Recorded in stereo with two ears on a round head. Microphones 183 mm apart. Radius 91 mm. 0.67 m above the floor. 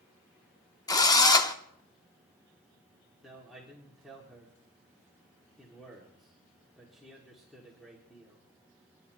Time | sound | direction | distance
0.9 | a drill | 20° left (ahead or behind) | 0.8 m
3.2 | a man speaking | centre (ahead or behind) | 1.9 m